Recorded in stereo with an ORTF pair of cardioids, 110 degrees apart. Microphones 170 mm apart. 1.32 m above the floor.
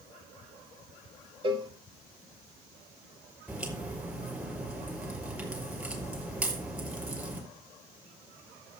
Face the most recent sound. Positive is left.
turn(degrees=-10)